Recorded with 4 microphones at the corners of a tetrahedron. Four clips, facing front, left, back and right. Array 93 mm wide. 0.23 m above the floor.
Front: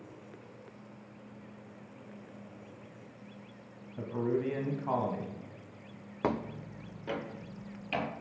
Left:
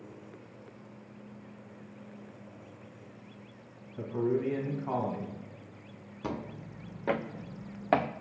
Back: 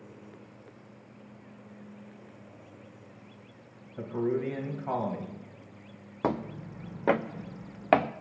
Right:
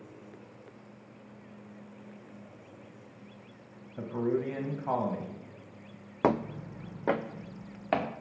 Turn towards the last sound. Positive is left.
turn(degrees=170)